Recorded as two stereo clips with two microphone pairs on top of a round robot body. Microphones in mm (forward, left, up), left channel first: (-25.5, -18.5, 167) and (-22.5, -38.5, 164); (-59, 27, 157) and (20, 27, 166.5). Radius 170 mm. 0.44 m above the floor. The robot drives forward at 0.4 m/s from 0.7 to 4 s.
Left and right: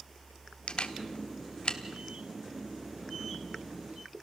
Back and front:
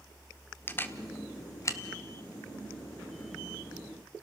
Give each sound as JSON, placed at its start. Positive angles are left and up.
{"t": 0.7, "sound": "a camera shutter", "azimuth_deg": 120, "distance_m": 1.2}